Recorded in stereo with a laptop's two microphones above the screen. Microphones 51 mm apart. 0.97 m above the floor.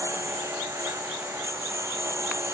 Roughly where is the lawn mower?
Right.